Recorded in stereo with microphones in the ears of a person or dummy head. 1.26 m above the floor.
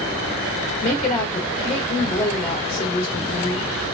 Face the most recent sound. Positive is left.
turn(degrees=30)  # may be behind; listen again after turning